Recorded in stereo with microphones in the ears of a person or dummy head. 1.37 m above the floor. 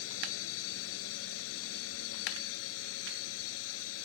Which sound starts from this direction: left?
A drone, at 0.0 s.